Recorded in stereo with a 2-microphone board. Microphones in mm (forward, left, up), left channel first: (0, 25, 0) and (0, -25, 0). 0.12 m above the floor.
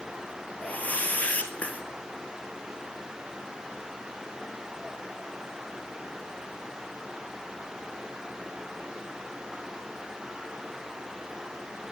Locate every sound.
0.6 s a whoosh: 30° left (ahead or behind), 1.1 m